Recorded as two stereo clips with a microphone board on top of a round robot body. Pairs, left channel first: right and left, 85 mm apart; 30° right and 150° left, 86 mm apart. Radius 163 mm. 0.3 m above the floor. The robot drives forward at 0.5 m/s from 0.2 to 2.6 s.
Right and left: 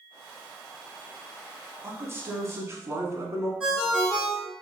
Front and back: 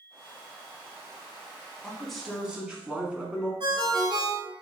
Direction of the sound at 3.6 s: 170° left.